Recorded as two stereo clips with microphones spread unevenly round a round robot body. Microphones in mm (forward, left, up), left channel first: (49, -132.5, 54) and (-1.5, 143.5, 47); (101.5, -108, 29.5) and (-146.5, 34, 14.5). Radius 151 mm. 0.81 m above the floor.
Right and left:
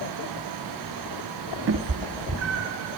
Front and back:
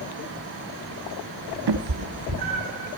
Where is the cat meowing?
150° left, 0.6 m; by 2.9 s 145° left, 2.5 m.